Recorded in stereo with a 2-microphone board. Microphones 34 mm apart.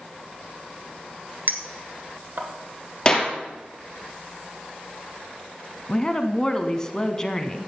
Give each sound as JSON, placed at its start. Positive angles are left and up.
{"t": 1.5, "sound": "a clink", "side_deg": -60, "distance_m": 1.5}
{"t": 3.0, "sound": "a clap", "side_deg": 25, "distance_m": 3.0}
{"t": 5.9, "sound": "a woman speaking", "side_deg": 15, "distance_m": 1.2}